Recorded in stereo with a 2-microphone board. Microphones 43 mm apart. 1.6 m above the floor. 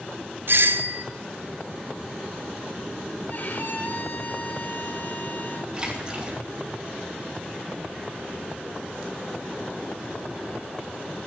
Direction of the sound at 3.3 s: 45° left (ahead or behind).